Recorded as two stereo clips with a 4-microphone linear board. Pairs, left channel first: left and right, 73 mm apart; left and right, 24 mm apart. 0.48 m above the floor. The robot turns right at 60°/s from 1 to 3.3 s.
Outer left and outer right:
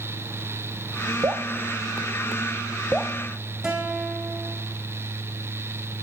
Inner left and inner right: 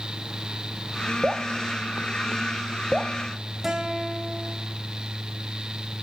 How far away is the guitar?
About 3 m.